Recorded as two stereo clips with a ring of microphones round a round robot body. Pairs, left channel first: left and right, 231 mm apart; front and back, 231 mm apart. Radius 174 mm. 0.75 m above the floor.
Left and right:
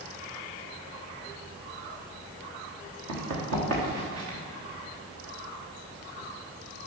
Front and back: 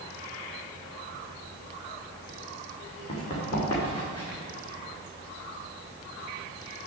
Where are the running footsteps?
75° right, 4.5 m; by 4.4 s 80° right, 5 m.